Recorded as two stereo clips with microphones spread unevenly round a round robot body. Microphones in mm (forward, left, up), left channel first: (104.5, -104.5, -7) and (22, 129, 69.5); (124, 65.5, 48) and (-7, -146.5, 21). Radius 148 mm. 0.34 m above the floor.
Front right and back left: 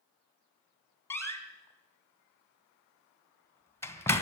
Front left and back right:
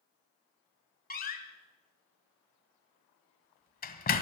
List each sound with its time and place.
1.1 s a door slam: straight ahead, 2.5 m